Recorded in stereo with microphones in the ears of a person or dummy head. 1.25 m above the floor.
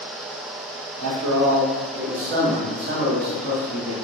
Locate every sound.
1.0 s a man speaking: 75° right (ahead or behind), 0.8 m; by 3.9 s 40° right (ahead or behind), 2 m